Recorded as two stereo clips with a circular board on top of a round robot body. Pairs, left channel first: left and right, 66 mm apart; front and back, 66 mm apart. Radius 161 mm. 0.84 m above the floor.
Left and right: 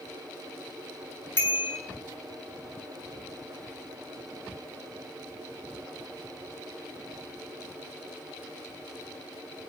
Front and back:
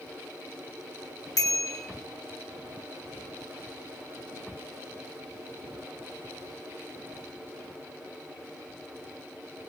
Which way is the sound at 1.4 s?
35° left.